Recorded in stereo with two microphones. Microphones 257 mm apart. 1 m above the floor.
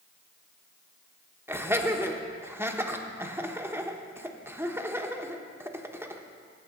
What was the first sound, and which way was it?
Laughter, 10° right (ahead or behind).